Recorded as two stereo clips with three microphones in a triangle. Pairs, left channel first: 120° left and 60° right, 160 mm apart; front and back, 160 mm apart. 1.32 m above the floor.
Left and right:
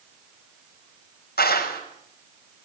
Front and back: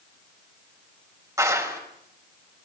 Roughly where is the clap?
Left.